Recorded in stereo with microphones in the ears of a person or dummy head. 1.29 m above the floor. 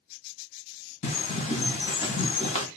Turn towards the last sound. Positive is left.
turn(degrees=30)  # may be behind; listen again after turning